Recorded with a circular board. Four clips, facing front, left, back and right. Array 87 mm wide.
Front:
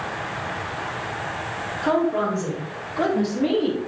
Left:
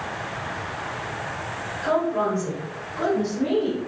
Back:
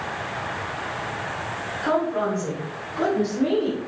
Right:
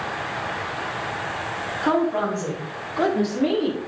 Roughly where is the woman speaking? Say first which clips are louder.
Right 1 dB, front 2 dB; right.